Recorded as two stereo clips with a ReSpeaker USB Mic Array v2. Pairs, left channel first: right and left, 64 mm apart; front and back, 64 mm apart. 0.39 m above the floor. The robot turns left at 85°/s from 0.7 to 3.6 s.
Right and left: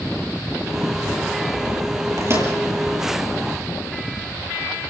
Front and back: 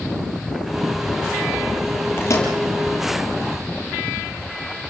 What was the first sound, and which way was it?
A microwave, 55° left.